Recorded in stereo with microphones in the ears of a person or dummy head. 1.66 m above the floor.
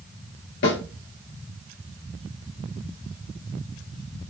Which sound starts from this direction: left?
A snare drum, at 0.6 s.